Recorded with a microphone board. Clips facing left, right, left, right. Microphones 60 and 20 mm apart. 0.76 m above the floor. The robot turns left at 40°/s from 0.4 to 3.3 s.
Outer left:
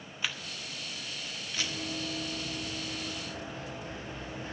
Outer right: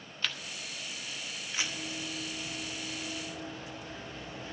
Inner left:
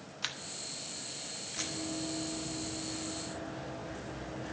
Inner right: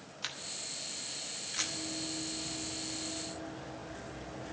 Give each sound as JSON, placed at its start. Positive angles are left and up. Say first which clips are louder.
{"t": 0.2, "sound": "a camera shutter", "louder": "even, inner left 1 dB", "side_deg": 10, "distance_m": 0.9}
{"t": 1.6, "sound": "running footsteps", "louder": "outer left 2 dB, even", "side_deg": 55, "distance_m": 3.5}